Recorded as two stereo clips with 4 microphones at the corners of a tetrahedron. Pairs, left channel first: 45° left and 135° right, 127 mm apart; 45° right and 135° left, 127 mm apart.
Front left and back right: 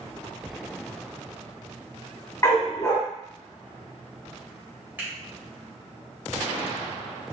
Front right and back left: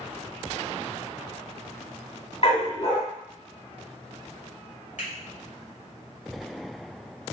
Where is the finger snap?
60° right, 2 m.